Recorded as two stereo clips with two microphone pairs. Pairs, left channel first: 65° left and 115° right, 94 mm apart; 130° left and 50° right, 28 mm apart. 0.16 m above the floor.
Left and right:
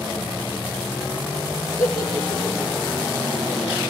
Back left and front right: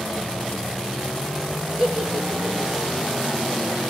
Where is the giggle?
10° left, 3.5 m.